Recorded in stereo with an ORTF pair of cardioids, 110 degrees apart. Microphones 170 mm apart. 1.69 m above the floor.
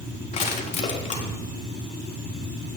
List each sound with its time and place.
0.3 s crushing: 45° left, 4 m